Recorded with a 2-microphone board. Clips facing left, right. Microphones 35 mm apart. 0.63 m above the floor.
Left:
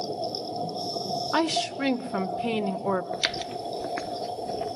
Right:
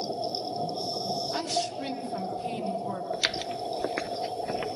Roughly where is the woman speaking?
Left.